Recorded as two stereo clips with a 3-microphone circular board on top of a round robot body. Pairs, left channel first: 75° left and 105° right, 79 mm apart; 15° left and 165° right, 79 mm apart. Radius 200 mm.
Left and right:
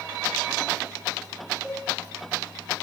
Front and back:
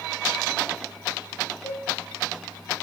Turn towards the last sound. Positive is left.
turn(degrees=-20)